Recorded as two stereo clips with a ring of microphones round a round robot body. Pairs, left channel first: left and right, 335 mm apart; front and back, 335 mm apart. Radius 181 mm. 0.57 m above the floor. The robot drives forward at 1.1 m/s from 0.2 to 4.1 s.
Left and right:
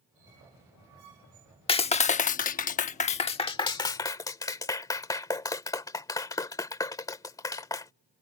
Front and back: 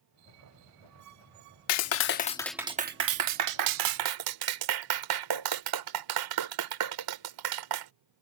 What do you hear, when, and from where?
1.7 s a clap: 20° left; by 7.9 s 170° left